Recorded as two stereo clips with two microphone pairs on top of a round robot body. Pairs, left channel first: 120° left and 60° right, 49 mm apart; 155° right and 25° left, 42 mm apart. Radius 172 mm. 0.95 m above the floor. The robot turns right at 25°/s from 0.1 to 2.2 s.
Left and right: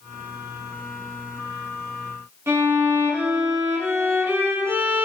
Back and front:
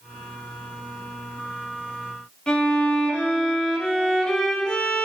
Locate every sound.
2.5 s a violin: 85° right, 2.5 m